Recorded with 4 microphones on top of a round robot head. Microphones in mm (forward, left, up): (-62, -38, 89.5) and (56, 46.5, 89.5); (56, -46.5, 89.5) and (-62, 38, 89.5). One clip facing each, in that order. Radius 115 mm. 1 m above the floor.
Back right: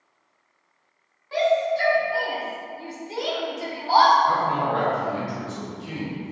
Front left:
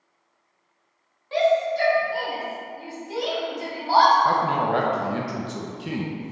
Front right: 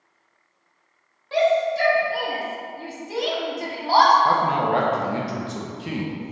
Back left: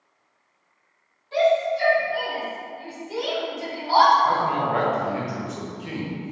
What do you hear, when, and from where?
1.3 s a shout: 25° right, 2 m; by 4.2 s 75° right, 1.7 m
4.2 s a man speaking: 25° left, 0.9 m